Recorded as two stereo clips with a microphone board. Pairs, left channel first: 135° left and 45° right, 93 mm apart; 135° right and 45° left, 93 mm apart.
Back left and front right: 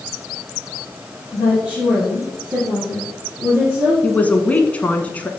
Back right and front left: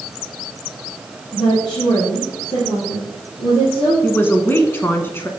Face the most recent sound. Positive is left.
turn(degrees=-170)